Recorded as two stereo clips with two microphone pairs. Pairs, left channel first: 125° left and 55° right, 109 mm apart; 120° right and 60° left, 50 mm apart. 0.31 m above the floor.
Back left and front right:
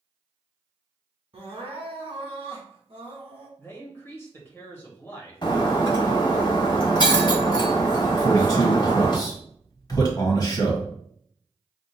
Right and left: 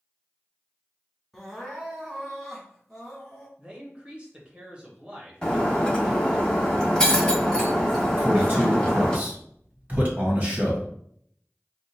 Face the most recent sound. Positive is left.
turn(degrees=90)